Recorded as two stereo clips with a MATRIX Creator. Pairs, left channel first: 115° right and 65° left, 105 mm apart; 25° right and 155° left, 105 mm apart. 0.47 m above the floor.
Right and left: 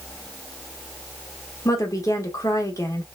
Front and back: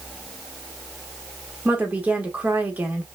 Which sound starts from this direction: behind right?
A woman speaking, at 1.6 s.